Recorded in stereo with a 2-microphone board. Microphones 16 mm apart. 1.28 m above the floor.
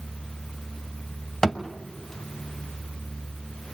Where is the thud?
35° left (ahead or behind), 1.5 m.